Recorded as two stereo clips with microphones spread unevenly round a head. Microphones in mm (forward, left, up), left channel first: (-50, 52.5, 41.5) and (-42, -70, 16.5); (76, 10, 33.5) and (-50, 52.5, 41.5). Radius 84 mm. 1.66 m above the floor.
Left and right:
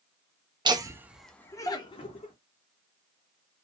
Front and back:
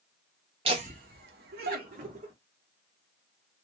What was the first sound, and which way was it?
Laughter, 145° right.